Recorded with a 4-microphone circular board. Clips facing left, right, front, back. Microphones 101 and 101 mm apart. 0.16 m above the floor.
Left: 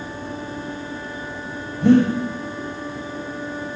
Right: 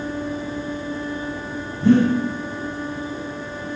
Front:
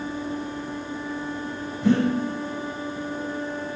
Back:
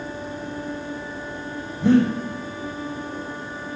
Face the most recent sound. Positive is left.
turn(degrees=120)